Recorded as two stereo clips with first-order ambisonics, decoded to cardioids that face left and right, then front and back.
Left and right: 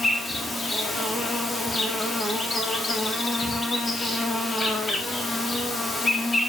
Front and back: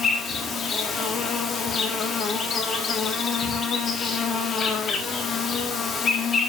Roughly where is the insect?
Ahead left.